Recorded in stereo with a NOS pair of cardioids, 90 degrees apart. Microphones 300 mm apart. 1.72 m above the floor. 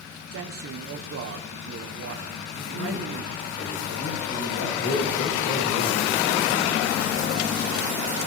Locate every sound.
0.3 s a man speaking: 50° right, 1.6 m
2.5 s a man speaking: 65° left, 9 m
4.8 s a man speaking: 35° left, 7 m